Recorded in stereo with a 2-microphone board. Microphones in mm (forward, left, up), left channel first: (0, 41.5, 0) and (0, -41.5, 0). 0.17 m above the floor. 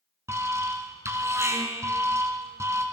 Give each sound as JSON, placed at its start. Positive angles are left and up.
{"t": 0.3, "sound": "an alarm", "side_deg": -40, "distance_m": 2.0}